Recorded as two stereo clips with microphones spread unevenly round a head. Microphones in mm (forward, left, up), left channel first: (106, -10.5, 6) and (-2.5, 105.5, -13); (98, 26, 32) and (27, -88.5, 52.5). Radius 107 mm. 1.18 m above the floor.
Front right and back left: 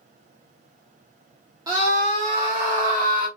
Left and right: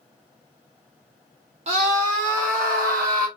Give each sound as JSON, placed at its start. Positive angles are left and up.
{"t": 1.7, "sound": "a scream", "azimuth_deg": -165, "distance_m": 1.1}